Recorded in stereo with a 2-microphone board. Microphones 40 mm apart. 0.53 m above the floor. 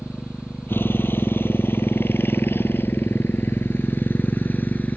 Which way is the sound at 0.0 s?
70° left (ahead or behind).